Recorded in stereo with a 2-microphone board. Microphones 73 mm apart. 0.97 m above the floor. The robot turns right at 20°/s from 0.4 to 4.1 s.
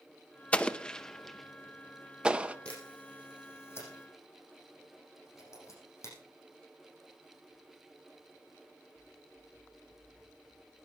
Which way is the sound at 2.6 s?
15° left (ahead or behind).